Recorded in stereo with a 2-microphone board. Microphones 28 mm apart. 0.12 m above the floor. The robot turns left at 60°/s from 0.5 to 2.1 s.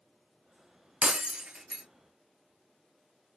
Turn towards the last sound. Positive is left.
turn(degrees=175)